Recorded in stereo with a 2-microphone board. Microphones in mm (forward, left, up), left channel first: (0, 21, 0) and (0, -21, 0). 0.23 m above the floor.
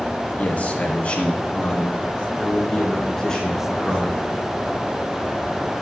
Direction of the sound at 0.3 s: 40° left (ahead or behind).